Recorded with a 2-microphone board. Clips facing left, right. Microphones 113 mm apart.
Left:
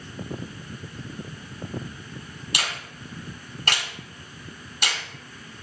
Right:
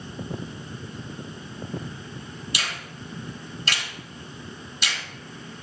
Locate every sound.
2.5 s a finger snap: 60° left (ahead or behind), 1.7 m